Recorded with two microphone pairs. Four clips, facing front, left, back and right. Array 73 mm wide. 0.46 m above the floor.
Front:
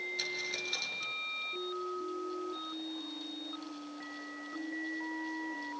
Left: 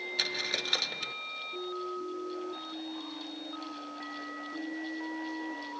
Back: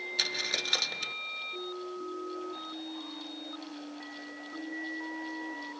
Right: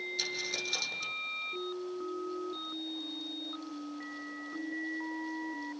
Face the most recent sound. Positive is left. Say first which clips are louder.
# left 3 dB, back 3 dB
turn(degrees=130)